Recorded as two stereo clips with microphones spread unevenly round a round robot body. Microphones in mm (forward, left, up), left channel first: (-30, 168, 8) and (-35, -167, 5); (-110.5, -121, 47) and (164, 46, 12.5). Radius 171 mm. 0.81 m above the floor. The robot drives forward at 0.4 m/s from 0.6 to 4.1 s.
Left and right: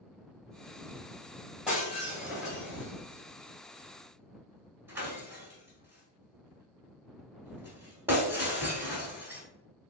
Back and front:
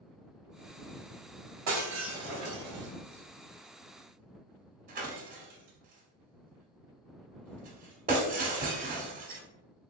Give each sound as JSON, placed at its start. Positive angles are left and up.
{"t": 1.7, "sound": "breaking glass", "azimuth_deg": -5, "distance_m": 1.5}